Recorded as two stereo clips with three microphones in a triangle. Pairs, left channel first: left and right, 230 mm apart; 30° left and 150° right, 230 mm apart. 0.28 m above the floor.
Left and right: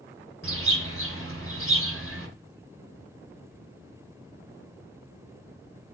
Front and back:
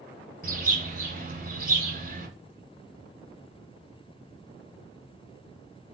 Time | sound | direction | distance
0.4 | a bird | 100° right | 2.0 m